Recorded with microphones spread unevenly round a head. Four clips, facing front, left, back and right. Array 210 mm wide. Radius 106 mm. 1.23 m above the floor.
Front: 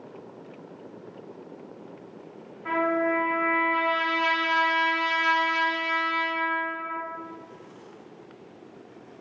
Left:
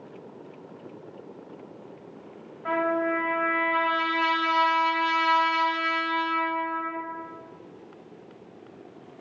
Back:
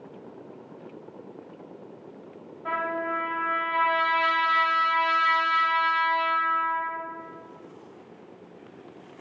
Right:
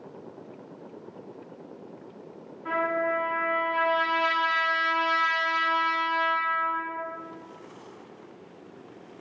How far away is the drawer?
No drawer in this recording.